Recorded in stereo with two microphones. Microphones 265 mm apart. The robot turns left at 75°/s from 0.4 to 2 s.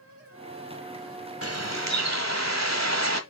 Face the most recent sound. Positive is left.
turn(degrees=-100)